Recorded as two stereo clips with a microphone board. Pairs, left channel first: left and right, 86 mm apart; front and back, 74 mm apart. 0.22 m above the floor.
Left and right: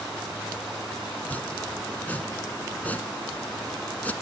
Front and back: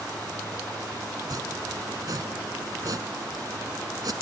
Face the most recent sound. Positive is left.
turn(degrees=160)